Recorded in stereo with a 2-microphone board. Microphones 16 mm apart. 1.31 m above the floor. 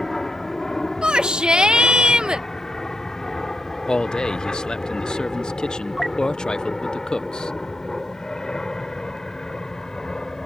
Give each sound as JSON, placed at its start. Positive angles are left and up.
{"t": 0.0, "sound": "an aircraft", "side_deg": 30}
{"t": 1.0, "sound": "a shout", "side_deg": -75}
{"t": 3.9, "sound": "a man speaking", "side_deg": 60}